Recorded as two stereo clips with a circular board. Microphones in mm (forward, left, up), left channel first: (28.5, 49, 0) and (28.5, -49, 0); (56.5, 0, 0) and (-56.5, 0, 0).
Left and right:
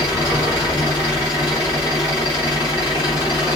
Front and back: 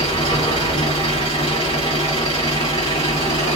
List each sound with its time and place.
0.0 s an engine running: 45° left, 8 m